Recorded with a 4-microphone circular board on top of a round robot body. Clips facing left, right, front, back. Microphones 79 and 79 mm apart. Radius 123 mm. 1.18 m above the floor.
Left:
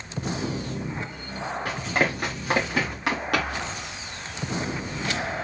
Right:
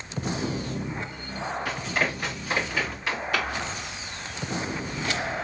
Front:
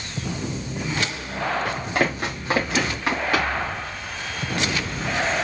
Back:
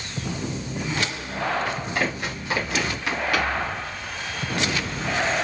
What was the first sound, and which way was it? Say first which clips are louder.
Running footsteps: left 4 dB, front 2 dB; 40° left.